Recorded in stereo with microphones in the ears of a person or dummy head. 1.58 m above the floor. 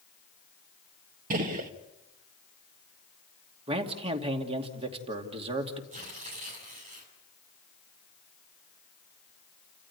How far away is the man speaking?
About 2.5 m.